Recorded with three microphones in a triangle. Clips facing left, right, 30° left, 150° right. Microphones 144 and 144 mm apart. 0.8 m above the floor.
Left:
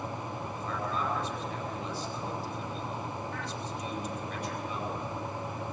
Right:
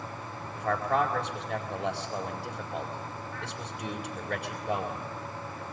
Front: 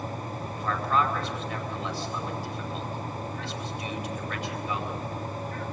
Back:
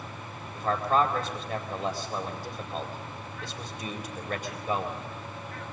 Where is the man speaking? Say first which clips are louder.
Right 9 dB, back 2 dB; 105° right, 4.5 m.